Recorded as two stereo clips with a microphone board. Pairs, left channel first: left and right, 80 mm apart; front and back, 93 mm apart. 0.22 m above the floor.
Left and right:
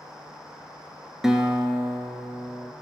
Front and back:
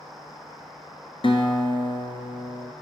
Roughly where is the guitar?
Ahead.